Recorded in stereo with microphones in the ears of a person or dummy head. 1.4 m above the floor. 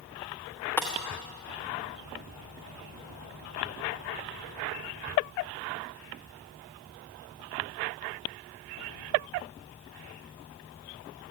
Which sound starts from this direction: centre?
Breaking glass, at 0.8 s.